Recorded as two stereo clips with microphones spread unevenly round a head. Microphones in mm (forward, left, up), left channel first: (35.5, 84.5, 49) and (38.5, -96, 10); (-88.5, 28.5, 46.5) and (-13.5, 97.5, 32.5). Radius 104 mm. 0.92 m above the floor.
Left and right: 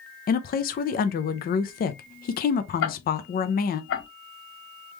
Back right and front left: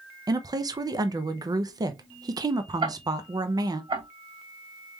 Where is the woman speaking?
60° left, 0.6 m.